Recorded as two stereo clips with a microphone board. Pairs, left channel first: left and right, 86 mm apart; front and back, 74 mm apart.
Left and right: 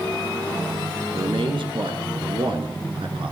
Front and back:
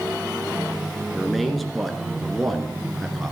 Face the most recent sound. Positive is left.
turn(degrees=-90)